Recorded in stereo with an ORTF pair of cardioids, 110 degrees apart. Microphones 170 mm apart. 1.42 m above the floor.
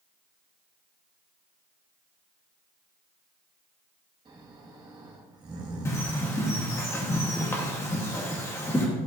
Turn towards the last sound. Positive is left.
turn(degrees=15)